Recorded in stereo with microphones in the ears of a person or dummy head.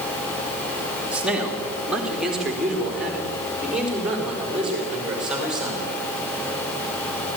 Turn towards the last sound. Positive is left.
turn(degrees=-5)  # may be behind; listen again after turning